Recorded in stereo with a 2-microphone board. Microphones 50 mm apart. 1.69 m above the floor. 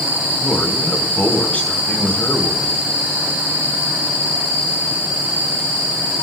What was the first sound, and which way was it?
A man speaking, 30° left (ahead or behind).